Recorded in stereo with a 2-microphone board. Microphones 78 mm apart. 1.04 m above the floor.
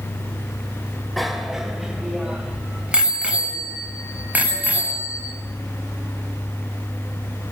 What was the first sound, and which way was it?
A bicycle bell, centre (ahead or behind).